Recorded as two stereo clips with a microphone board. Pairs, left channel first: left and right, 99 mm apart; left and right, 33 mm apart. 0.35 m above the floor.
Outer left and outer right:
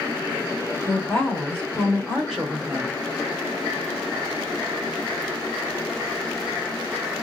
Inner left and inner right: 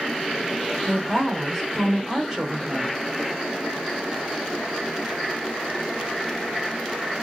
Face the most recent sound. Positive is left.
turn(degrees=-25)  # may be behind; listen again after turning